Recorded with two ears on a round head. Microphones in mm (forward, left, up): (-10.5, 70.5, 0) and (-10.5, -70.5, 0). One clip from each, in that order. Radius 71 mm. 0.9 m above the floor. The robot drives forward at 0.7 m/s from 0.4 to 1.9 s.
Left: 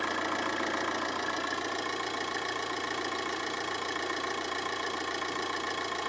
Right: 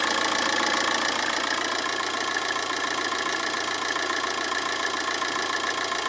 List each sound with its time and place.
0.0 s an engine running: 80° right, 0.9 m; by 6.1 s 45° right (ahead or behind), 1.3 m